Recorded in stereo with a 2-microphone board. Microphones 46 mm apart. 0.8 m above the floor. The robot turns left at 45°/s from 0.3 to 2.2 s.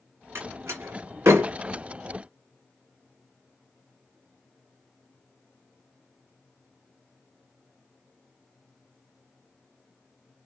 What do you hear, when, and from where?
0.3 s a door slam: 65° right (ahead or behind), 1.8 m